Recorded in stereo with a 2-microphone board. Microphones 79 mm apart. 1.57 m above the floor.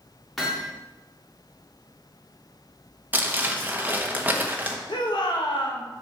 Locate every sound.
0.4 s hammering: centre (ahead or behind), 2 m
3.1 s crumpling: 20° right (ahead or behind), 1.2 m
4.9 s a shout: 75° left (ahead or behind), 1.8 m